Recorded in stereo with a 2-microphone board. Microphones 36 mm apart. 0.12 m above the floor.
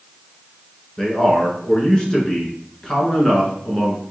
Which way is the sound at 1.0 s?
20° left (ahead or behind).